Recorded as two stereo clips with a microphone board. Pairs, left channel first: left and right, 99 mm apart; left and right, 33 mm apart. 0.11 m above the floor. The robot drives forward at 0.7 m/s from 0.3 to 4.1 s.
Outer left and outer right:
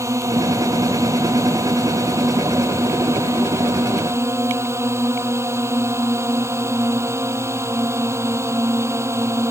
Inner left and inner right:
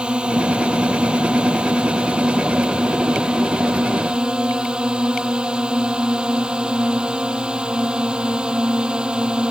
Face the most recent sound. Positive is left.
turn(degrees=-25)  # may be behind; listen again after turning